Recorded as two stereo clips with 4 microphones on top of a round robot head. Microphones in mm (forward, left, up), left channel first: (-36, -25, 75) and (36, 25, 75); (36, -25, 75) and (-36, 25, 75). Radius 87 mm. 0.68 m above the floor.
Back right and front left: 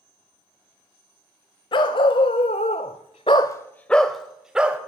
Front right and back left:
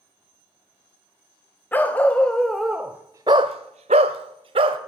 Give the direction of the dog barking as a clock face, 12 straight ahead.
4 o'clock.